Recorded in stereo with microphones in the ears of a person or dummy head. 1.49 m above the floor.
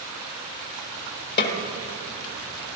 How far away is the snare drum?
About 1.5 m.